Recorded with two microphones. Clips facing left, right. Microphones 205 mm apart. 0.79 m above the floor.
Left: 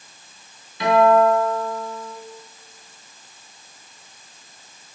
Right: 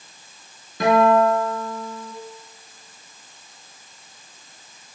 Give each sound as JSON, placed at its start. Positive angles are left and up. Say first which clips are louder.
{"t": 0.8, "sound": "a guitar", "louder": "left 1 dB", "side_deg": -45, "distance_m": 3.0}